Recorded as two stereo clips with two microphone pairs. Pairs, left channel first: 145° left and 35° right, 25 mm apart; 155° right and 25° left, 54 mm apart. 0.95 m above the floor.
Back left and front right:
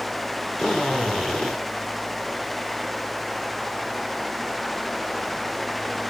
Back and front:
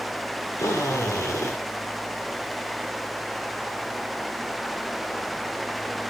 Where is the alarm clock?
No alarm clock in this recording.